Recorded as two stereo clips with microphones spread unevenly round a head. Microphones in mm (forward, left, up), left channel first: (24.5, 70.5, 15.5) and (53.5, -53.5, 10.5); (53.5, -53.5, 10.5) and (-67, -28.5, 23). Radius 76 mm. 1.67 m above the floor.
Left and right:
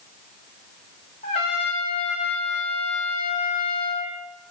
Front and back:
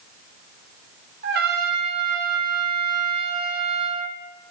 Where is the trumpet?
160° left, 0.7 m.